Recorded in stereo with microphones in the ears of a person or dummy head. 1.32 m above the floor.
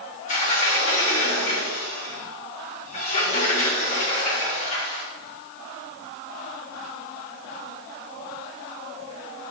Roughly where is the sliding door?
Left.